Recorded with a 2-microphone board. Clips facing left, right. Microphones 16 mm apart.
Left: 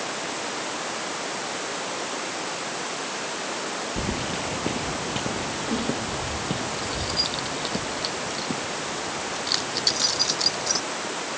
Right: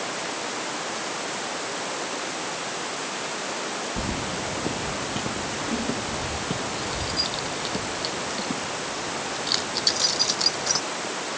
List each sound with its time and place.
4.0 s keys jangling: 20° left (ahead or behind); by 10.8 s 5° right (ahead or behind)